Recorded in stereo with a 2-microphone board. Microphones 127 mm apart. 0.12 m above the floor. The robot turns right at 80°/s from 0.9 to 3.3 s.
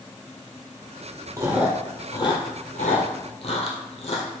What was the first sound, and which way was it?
Chewing, 30° right (ahead or behind).